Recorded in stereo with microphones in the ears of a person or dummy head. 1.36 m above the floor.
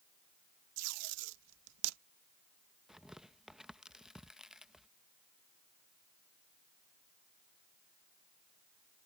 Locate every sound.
0.8 s tape being pulled: 85° right
2.9 s tearing paper: centre (ahead or behind)